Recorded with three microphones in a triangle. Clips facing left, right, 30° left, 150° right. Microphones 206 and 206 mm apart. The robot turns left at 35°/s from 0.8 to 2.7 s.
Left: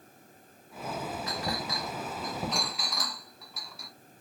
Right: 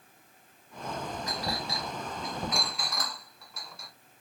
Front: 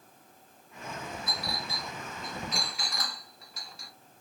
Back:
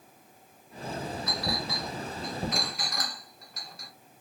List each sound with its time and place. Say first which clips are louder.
1.3 s a clink: left 1 dB, back 5 dB; 135° right, 1.6 m; by 3.9 s 175° left, 1.6 m